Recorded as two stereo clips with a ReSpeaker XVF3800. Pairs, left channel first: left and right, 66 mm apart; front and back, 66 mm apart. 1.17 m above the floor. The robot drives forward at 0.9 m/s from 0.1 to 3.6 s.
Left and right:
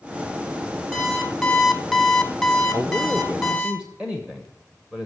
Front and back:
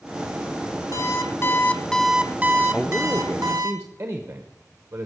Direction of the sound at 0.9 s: 5° left.